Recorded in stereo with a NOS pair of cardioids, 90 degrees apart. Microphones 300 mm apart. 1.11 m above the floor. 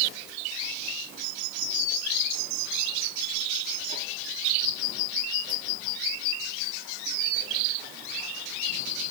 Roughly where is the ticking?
I don't hear ticking.